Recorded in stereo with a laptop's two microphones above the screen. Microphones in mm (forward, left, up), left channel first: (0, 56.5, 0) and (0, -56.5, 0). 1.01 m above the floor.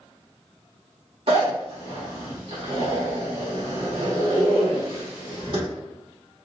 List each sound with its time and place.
1.3 s a zipper: 55° right (ahead or behind), 1.2 m